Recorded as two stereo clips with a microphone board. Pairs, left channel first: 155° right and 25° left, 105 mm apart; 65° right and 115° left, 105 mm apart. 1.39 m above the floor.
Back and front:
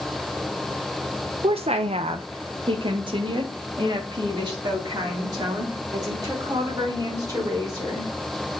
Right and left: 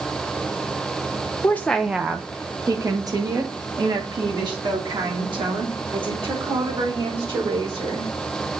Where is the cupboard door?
I don't hear a cupboard door.